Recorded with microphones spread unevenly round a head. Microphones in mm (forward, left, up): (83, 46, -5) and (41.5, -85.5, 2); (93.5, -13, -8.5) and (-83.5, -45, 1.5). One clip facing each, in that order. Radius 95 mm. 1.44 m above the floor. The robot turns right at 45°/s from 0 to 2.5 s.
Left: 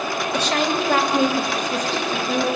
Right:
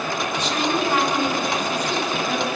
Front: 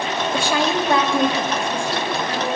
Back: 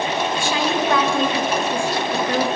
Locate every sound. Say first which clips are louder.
0.3 s a woman speaking: left 2 dB, front 4 dB; 45° left, 3 m; by 2.5 s 140° left, 3 m